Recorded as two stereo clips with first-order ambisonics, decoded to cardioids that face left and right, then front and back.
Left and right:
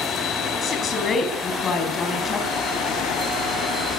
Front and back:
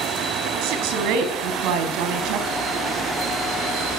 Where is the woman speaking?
155° left, 4.5 m.